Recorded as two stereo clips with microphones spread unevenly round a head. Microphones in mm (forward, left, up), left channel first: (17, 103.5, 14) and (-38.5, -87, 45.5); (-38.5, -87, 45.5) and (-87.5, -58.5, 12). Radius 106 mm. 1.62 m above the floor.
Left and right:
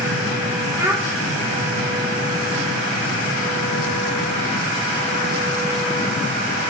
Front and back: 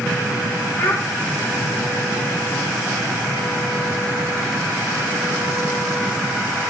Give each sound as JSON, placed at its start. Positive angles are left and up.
{"t": 0.8, "sound": "a child speaking", "azimuth_deg": -40, "distance_m": 1.0}